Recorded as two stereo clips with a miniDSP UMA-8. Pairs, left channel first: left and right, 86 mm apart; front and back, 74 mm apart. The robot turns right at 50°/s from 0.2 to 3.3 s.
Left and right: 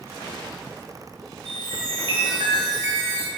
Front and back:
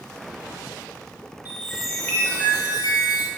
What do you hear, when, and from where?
1.4 s a chime: 105° right, 0.5 m; by 3.3 s 15° right, 0.5 m